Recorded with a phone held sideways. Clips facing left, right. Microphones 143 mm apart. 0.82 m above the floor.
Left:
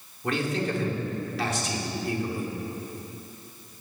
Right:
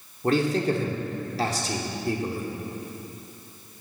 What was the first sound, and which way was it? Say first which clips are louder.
A man speaking: right 5 dB; 35° right (ahead or behind).